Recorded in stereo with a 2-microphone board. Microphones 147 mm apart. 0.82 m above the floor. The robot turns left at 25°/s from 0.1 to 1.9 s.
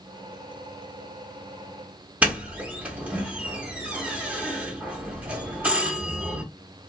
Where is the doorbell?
10° right (ahead or behind), 1.1 m.